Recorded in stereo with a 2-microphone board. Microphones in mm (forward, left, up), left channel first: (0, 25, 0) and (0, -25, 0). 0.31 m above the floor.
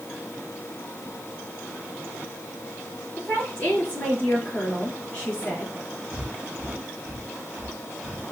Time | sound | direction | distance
3.2 | a woman speaking | 30° left (ahead or behind) | 4.5 m
6.1 | breathing | 15° right (ahead or behind) | 4 m